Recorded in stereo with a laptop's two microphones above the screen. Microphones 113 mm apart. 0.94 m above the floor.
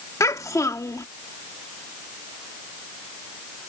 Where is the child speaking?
30° left (ahead or behind).